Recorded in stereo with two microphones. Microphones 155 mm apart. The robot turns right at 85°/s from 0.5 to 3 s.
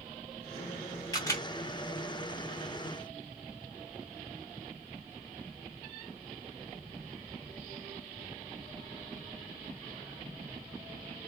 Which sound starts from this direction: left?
A camera shutter, at 1.1 s.